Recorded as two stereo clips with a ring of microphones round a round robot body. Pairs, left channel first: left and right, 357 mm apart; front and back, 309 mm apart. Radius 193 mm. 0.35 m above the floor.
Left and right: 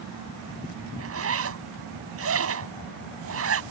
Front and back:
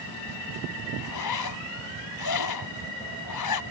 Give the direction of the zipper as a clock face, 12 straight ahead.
1 o'clock.